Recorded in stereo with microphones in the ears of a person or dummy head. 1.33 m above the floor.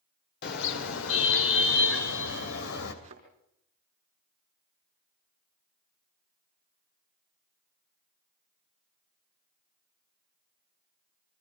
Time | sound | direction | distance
0.4 | a car horn | 65° left (ahead or behind) | 2.5 m
3.0 | a thud | 40° right (ahead or behind) | 5 m